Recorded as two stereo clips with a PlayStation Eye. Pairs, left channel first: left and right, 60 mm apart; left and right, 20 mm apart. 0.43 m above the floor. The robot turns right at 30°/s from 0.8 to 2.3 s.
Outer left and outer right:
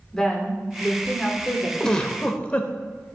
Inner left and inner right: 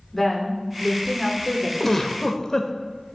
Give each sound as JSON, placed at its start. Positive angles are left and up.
{"t": 0.1, "sound": "a woman speaking", "side_deg": 10, "distance_m": 1.1}
{"t": 1.8, "sound": "a giggle", "side_deg": 10, "distance_m": 0.5}